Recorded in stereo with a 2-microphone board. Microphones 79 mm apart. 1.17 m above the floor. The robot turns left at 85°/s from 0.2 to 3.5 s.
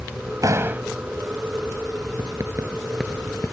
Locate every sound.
0.4 s a door slam: 130° right; by 0.8 s 165° right
2.2 s writing: 70° right (ahead or behind); by 3.5 s 40° left (ahead or behind)